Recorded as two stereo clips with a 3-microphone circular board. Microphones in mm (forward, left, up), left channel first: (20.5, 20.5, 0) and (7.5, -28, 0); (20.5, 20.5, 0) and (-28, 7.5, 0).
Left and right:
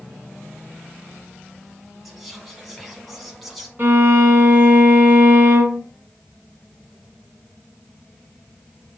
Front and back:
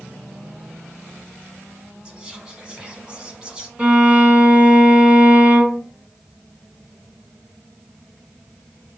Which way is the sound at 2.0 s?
165° left.